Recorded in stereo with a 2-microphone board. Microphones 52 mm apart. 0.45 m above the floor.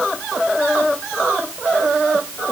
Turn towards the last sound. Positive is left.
No sound to turn to.